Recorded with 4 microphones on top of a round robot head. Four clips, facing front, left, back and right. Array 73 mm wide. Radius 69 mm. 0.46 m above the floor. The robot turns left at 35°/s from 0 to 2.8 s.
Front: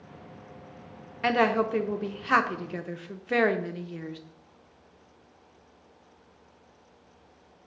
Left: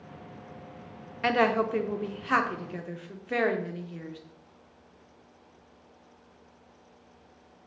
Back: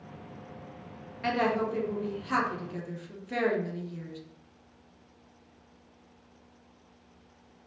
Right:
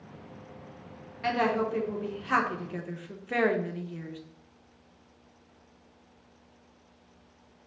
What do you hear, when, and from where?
1.2 s a woman speaking: 45° left, 1.0 m; by 4.2 s 10° right, 1.0 m